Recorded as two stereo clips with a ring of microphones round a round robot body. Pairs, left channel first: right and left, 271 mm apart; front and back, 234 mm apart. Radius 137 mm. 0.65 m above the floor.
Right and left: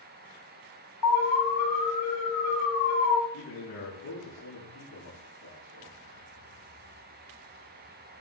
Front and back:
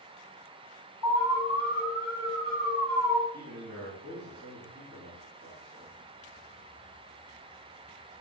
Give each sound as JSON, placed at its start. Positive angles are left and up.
{"t": 1.0, "sound": "an alarm", "azimuth_deg": -105, "distance_m": 9.0}
{"t": 3.3, "sound": "a man speaking", "azimuth_deg": -125, "distance_m": 9.5}